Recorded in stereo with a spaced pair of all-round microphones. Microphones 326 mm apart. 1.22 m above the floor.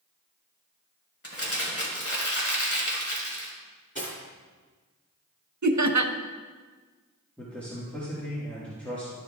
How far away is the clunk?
I don't hear a clunk.